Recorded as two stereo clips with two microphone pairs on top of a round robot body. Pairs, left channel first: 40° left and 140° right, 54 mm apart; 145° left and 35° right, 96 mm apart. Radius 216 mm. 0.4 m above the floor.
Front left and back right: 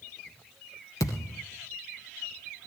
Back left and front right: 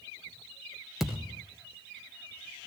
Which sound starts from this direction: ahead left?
A thud, at 1.0 s.